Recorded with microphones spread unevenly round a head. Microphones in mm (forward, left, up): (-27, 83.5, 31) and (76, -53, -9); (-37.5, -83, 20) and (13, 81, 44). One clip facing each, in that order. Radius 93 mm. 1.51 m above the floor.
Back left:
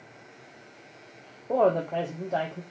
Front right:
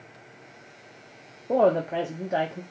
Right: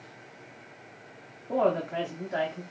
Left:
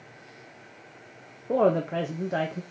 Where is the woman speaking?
25° left, 0.7 m.